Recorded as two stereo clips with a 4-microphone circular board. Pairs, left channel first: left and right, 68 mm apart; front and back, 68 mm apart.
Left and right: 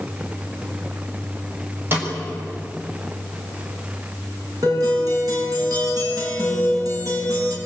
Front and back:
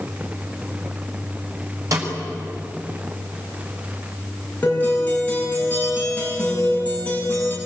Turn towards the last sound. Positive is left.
turn(degrees=-65)